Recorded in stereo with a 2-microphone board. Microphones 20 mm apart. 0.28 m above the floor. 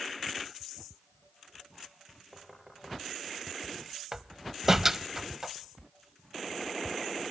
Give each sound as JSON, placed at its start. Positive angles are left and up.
{"t": 2.3, "sound": "knocking", "side_deg": -15, "distance_m": 6.5}
{"t": 4.1, "sound": "a door slam", "side_deg": -20, "distance_m": 0.8}